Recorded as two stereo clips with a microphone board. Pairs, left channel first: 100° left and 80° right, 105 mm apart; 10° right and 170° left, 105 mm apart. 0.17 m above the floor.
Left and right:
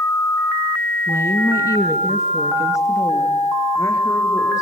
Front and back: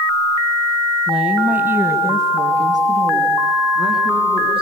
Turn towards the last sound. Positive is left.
turn(degrees=160)